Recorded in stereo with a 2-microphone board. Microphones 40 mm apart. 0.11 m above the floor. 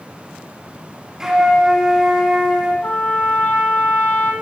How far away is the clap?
I don't hear a clap.